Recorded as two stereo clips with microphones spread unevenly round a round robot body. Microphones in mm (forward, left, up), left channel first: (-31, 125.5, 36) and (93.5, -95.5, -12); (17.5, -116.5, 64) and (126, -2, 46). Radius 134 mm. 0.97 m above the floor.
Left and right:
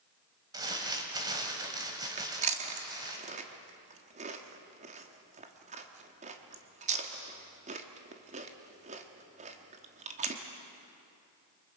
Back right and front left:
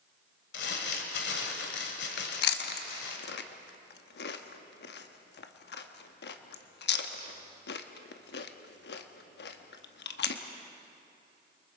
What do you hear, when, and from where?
0.5 s crumpling: 140° right, 1.9 m
2.2 s chewing: 125° right, 1.1 m